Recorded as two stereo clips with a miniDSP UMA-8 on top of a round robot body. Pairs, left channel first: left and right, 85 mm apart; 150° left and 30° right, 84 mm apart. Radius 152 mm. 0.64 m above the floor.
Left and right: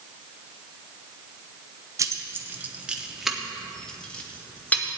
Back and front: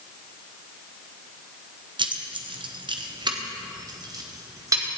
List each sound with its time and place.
2.0 s keys jangling: 40° right, 1.0 m; by 4.8 s 20° left, 1.8 m